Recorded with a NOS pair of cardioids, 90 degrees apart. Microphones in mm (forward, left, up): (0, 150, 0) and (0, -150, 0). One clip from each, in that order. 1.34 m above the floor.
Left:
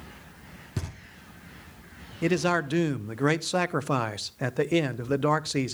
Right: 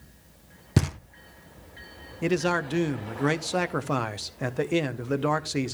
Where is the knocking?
45° right, 0.7 m.